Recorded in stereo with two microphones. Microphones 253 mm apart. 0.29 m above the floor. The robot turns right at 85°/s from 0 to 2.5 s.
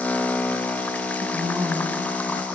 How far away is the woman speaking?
About 2 m.